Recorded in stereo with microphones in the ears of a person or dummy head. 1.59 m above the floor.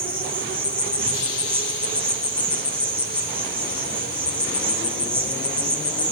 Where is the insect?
10° left (ahead or behind), 0.7 m.